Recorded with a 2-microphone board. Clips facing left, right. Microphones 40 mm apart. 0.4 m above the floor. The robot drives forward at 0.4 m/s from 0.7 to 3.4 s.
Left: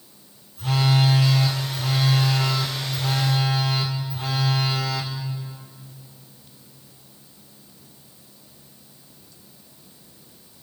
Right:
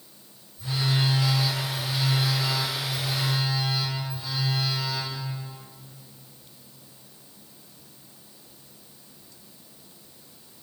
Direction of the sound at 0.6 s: 75° left (ahead or behind).